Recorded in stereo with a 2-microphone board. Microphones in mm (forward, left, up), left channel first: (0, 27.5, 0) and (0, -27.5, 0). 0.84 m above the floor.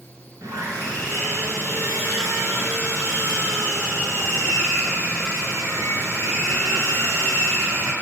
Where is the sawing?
85° right, 4 m.